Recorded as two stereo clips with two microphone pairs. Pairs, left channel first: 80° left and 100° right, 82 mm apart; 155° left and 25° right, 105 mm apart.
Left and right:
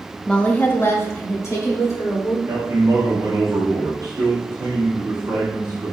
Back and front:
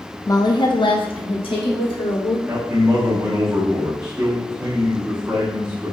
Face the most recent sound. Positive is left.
turn(degrees=-90)